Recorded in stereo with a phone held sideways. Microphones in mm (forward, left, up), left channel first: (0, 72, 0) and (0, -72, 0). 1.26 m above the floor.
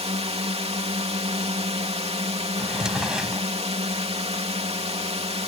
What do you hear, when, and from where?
0.0 s a drone: 45° right (ahead or behind)
2.6 s a drawer: 5° right (ahead or behind)